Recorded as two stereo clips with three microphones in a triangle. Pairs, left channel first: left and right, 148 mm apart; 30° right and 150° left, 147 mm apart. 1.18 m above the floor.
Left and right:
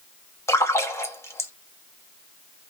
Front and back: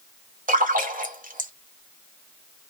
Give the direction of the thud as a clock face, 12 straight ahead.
No thud in this recording.